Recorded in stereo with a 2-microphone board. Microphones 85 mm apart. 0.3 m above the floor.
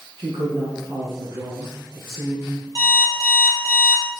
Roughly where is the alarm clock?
Right.